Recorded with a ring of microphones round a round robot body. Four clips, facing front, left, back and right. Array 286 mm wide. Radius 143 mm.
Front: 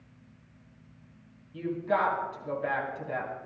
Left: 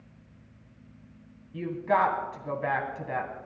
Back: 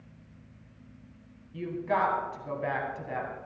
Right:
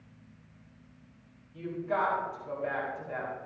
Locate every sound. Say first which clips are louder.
1.5 s a woman speaking: left 6 dB, front 1 dB; 100° left, 3 m